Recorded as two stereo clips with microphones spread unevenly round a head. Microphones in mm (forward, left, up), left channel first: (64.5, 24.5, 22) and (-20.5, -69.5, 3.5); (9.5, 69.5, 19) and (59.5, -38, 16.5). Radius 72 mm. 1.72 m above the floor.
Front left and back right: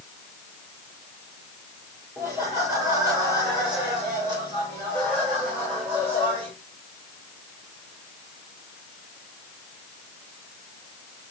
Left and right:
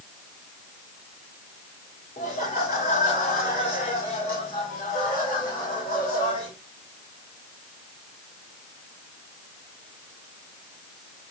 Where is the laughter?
155° left, 4.5 m; by 6.5 s 175° right, 7 m.